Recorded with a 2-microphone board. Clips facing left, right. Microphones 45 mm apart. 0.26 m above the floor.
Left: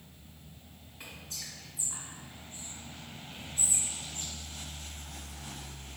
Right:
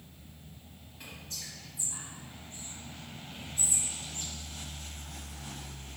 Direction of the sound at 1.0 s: 10° left (ahead or behind).